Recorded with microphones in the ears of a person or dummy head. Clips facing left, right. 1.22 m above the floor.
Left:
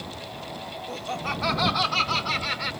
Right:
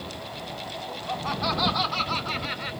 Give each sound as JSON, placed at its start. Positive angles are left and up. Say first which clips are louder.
{"t": 0.9, "sound": "laughter", "louder": "even", "side_deg": 30}